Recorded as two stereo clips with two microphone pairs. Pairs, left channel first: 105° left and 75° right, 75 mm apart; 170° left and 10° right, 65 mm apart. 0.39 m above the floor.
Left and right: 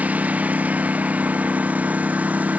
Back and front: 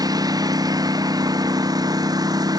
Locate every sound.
0.0 s a lawn mower: 5° right